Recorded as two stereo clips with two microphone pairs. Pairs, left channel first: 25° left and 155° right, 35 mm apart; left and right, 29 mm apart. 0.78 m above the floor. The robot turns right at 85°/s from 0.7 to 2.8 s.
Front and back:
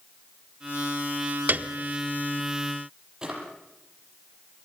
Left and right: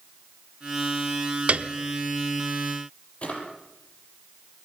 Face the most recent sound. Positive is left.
turn(degrees=135)